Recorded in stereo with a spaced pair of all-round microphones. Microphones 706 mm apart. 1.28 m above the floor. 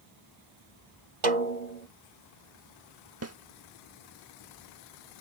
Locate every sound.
1.2 s a snare drum: 80° right
3.2 s a snare drum: 20° right (ahead or behind)